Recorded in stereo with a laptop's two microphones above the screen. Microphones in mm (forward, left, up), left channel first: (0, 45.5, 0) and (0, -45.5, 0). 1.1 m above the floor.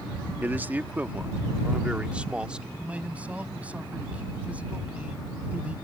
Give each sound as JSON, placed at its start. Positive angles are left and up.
{"t": 0.4, "sound": "a man speaking", "side_deg": -20}
{"t": 2.8, "sound": "a man speaking", "side_deg": -15}